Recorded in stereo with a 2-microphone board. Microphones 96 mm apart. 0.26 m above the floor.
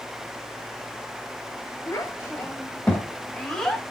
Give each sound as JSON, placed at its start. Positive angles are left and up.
{"t": 1.9, "sound": "a child speaking", "side_deg": 35, "distance_m": 1.2}